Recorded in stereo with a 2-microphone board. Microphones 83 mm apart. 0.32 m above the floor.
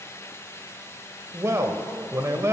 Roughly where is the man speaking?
Right.